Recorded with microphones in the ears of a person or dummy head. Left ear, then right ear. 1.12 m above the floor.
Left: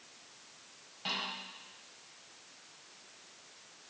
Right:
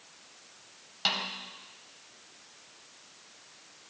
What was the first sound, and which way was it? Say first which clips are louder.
A snare drum: right 6 dB; 60° right (ahead or behind).